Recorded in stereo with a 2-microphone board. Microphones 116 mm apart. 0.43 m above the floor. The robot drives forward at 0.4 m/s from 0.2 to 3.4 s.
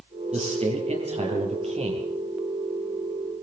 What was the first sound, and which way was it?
A man speaking, 60° right (ahead or behind).